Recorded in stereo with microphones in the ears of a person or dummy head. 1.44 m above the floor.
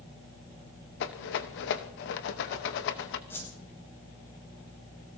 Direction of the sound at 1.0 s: 55° left (ahead or behind).